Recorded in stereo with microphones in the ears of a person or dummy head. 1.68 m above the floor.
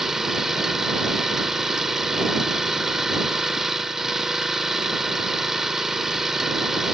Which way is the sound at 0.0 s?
Centre (ahead or behind).